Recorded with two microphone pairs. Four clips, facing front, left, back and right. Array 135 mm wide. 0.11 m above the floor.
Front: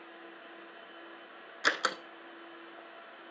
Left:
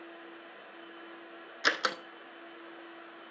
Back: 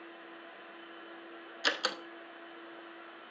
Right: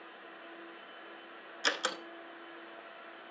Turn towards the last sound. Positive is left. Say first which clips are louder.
# left 4 dB, front 3 dB
turn(degrees=50)